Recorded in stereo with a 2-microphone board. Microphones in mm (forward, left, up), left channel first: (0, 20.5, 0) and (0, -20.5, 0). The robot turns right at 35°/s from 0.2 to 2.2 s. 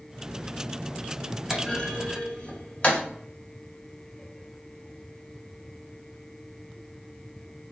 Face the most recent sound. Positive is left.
turn(degrees=35)  # may be behind; listen again after turning